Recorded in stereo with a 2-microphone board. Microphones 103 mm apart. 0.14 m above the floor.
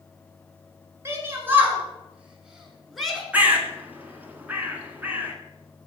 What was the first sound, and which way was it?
A shout, 25° right (ahead or behind).